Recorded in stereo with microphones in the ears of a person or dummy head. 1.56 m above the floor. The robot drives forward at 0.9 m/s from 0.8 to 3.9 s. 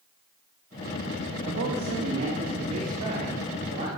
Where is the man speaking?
55° right (ahead or behind), 2.5 m; by 3.9 s 30° right (ahead or behind), 4.5 m.